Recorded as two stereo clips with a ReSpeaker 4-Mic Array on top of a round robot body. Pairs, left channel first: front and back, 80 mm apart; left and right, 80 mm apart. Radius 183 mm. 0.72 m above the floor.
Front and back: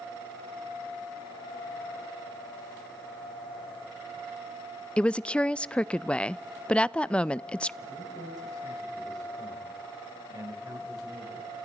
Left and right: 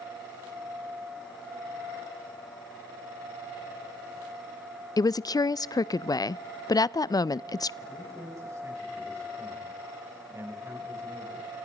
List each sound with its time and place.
5.0 s a woman speaking: 75° left, 0.5 m
7.8 s a man speaking: 140° right, 5.5 m